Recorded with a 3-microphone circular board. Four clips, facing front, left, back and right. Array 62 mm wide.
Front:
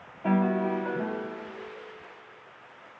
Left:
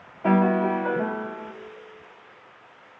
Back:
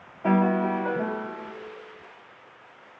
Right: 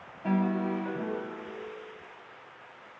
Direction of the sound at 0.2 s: 110° left.